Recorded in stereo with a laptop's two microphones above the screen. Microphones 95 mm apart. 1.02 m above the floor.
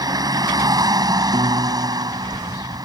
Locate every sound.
0.0 s a vehicle: 45° right (ahead or behind)
1.3 s a piano: 80° right